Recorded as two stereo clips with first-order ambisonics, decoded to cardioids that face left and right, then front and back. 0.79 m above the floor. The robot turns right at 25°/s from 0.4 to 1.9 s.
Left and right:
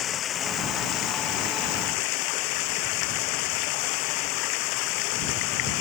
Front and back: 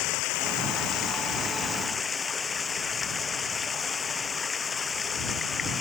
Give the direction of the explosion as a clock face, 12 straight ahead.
I don't hear an explosion.